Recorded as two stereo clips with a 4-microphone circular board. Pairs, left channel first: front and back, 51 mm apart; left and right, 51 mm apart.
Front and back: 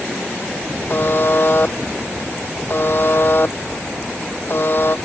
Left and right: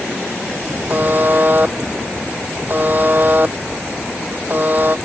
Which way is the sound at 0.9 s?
40° right.